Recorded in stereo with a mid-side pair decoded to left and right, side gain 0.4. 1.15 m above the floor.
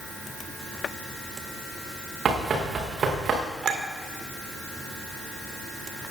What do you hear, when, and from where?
2.2 s running footsteps: 55° right, 5 m
3.6 s a clink: 60° right, 2.5 m